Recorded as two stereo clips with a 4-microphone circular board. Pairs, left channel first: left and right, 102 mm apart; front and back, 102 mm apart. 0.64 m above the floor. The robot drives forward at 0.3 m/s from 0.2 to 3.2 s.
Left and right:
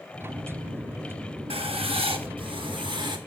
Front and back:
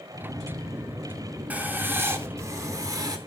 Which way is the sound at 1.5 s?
105° right.